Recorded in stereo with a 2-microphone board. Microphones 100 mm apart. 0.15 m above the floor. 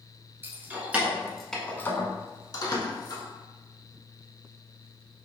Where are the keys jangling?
20° right (ahead or behind), 1.5 m; by 3.2 s 45° left (ahead or behind), 1.5 m.